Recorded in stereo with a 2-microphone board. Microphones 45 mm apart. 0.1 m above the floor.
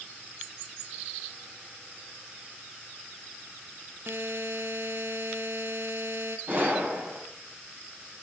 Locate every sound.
4.1 s a buzzer: 60° right (ahead or behind), 0.7 m
6.5 s a gunshot: 45° right (ahead or behind), 3.5 m